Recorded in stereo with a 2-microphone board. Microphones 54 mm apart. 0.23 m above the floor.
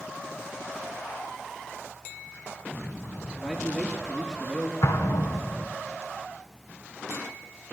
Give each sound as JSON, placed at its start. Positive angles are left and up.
{"t": 3.4, "sound": "a man speaking", "side_deg": -15, "distance_m": 4.0}
{"t": 4.8, "sound": "an explosion", "side_deg": 65, "distance_m": 2.5}